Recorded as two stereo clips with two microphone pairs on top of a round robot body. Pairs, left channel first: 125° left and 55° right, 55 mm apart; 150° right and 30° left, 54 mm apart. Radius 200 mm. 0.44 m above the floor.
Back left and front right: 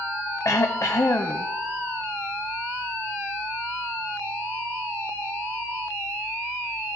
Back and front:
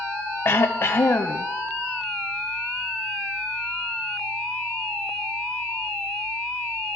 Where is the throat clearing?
160° left, 0.6 m.